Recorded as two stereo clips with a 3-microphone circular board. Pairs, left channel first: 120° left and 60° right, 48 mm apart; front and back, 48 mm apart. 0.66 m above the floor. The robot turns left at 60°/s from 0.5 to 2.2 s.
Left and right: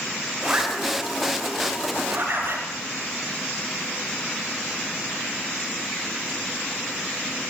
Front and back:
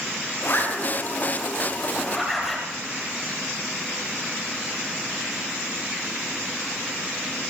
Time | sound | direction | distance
0.4 | a zipper | 10° left | 10 m